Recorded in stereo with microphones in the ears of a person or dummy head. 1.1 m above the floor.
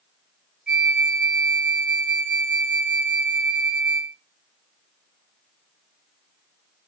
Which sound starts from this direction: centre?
A flute, at 0.7 s.